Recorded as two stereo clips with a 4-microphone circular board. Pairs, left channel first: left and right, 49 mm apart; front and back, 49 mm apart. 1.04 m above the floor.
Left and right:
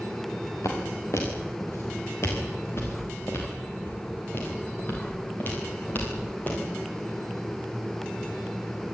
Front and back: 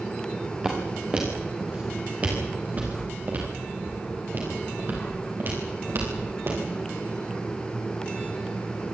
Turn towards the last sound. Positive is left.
turn(degrees=140)